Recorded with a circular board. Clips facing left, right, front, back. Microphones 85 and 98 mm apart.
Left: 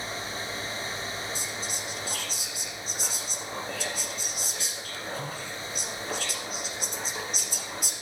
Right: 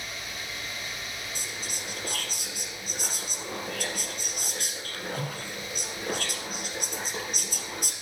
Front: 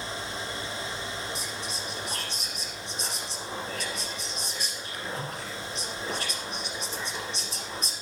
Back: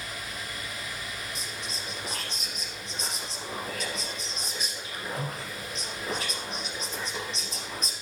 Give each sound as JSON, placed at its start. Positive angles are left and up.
{"t": 1.4, "sound": "whispering", "azimuth_deg": -85, "distance_m": 3.0}